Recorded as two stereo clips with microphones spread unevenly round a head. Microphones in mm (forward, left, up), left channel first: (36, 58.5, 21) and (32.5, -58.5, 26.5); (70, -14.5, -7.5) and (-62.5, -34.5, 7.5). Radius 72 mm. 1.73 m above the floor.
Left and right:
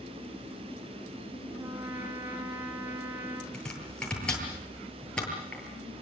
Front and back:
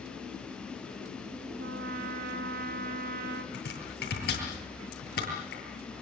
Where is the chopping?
5° left, 9 m.